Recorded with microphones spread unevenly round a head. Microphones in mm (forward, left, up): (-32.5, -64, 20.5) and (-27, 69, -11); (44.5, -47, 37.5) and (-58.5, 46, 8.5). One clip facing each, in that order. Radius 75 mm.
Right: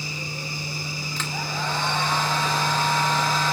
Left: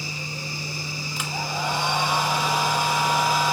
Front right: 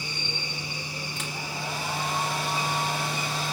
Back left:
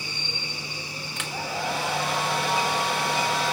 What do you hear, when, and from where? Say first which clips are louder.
1.2 s a hair dryer: left 2 dB, back left 7 dB; 170° left, 2 m